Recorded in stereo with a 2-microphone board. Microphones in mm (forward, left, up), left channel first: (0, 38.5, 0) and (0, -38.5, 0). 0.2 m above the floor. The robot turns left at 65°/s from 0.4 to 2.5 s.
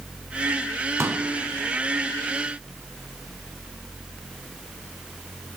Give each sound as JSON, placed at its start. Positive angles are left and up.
{"t": 1.0, "sound": "a pop", "side_deg": -40, "distance_m": 1.5}